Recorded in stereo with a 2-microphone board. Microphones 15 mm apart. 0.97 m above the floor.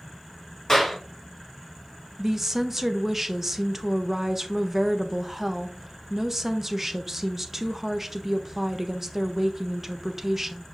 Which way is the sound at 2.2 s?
20° right (ahead or behind).